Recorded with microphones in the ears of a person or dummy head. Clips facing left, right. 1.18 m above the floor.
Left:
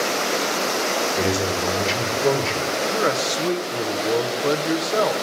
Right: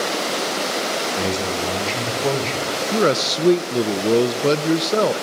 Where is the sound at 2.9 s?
40° right (ahead or behind), 0.7 m.